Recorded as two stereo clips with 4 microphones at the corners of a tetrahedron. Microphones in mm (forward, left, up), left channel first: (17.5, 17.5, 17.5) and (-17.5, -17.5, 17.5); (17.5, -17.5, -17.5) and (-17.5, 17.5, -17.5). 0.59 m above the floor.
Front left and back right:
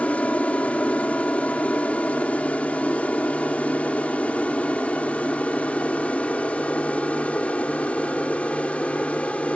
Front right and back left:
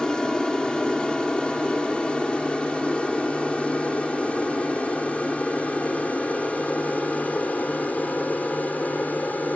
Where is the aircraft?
15° left; by 9.6 s 5° right.